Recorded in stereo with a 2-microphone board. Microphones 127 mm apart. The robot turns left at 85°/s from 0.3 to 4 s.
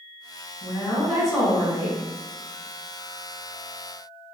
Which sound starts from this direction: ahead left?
A woman speaking, at 0.6 s.